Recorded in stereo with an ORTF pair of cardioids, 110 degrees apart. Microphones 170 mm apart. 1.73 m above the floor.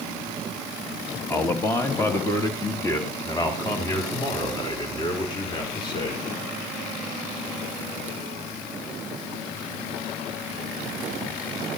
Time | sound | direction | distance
1.3 | a man speaking | 15° left | 2.0 m